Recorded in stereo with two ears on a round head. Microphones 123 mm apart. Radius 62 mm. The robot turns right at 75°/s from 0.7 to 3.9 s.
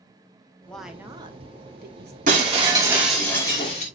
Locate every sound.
0.7 s a woman speaking: 175° left, 1.1 m; by 2.2 s 75° right, 1.1 m
2.3 s breaking glass: 65° right, 2.5 m; by 3.9 s 55° left, 2.5 m